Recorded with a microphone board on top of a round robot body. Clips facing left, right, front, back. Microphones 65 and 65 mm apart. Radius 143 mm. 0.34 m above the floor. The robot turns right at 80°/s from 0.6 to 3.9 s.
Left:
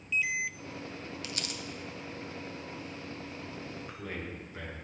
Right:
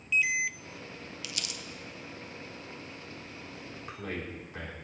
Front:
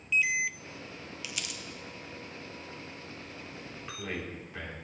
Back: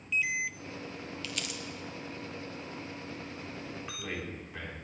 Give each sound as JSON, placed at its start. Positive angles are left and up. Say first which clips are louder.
{"t": 1.2, "sound": "crumpling", "louder": "left 2 dB, even", "azimuth_deg": 70, "distance_m": 1.1}
{"t": 3.6, "sound": "a man speaking", "louder": "right 1 dB, front 2 dB", "azimuth_deg": -115, "distance_m": 4.0}